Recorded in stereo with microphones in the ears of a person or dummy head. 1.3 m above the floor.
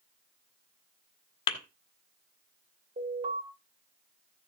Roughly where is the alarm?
Right.